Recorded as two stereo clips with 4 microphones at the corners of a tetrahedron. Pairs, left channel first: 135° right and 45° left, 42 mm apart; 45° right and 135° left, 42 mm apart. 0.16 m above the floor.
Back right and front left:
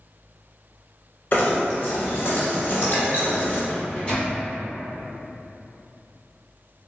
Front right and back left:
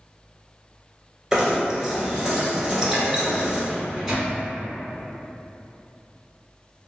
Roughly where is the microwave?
Behind.